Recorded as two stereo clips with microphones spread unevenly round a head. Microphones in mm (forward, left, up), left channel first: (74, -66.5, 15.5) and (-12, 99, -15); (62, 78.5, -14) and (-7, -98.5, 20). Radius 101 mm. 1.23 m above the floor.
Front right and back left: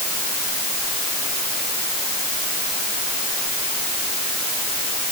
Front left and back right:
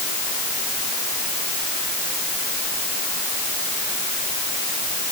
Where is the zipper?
I don't hear a zipper.